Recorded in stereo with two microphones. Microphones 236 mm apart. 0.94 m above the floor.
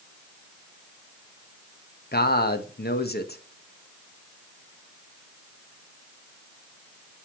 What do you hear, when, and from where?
2.1 s a man speaking: 40° left (ahead or behind), 0.9 m